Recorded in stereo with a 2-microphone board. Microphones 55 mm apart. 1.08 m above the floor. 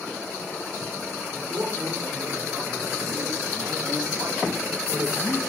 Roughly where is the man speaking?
Right.